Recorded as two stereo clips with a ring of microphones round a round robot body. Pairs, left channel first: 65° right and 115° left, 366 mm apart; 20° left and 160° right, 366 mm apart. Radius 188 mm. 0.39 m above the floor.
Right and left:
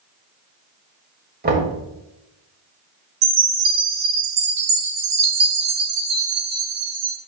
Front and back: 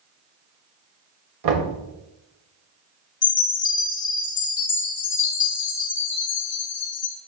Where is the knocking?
175° left, 1.9 m.